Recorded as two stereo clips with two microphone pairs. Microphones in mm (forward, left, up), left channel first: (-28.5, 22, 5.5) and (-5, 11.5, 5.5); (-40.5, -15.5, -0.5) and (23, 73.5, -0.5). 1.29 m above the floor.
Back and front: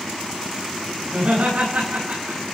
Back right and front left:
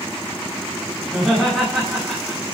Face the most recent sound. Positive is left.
turn(degrees=-35)